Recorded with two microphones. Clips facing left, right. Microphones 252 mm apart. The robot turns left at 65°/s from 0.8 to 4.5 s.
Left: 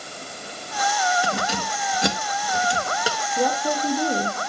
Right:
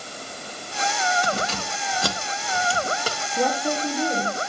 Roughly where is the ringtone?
I don't hear a ringtone.